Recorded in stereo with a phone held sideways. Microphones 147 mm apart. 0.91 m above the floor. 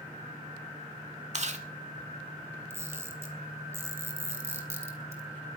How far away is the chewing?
About 1.7 m.